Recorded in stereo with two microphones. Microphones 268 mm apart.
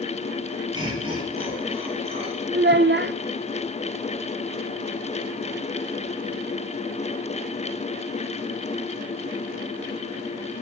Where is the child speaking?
40° right (ahead or behind), 0.5 m.